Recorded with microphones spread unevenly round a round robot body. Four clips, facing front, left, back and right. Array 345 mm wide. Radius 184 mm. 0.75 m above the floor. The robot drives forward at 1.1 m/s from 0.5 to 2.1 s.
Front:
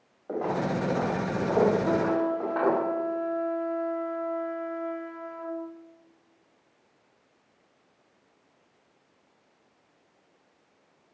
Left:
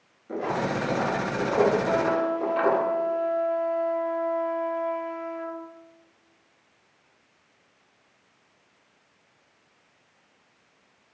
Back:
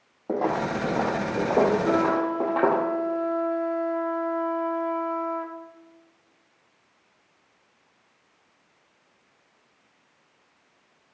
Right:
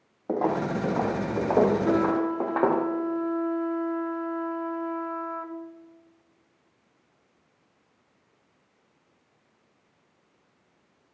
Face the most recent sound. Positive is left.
turn(degrees=-150)